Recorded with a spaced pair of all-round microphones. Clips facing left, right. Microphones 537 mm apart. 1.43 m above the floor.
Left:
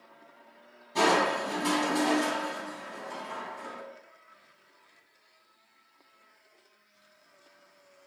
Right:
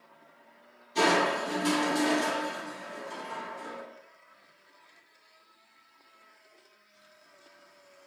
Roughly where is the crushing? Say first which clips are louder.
Even; left.